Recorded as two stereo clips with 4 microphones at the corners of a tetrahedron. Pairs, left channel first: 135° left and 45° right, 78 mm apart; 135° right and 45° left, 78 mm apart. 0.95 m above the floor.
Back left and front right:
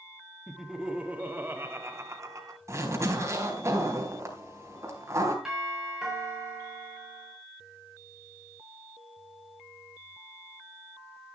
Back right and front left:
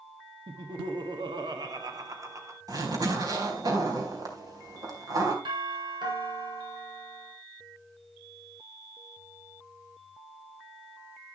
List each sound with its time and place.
0.5 s laughter: 45° left, 1.6 m; by 2.6 s 5° right, 2 m
2.7 s a zipper: 5° left, 3.5 m
5.5 s a doorbell: 40° left, 7.5 m